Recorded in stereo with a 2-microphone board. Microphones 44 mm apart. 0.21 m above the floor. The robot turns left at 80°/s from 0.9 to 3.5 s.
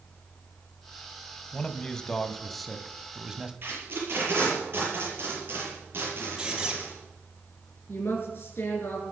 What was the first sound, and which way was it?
A man speaking, 20° left (ahead or behind).